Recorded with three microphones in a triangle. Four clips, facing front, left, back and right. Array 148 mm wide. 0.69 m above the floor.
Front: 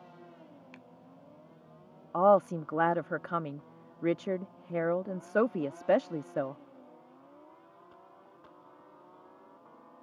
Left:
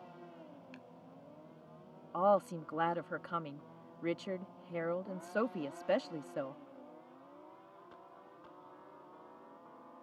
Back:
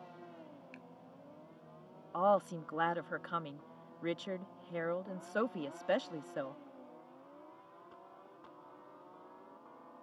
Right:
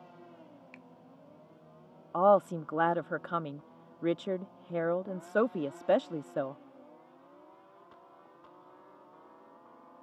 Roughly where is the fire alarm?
No fire alarm in this recording.